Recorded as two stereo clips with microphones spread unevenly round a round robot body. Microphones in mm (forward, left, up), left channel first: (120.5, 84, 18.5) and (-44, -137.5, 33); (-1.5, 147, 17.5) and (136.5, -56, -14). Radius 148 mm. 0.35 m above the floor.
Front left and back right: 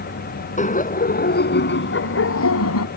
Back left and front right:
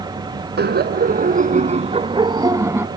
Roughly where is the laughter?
Ahead.